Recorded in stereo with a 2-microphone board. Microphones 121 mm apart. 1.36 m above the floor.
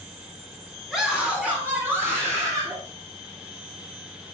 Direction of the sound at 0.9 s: 5° right (ahead or behind).